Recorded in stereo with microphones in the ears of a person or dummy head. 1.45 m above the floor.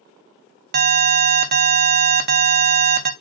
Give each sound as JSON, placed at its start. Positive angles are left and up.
{"t": 0.7, "sound": "an alarm", "side_deg": -40, "distance_m": 0.6}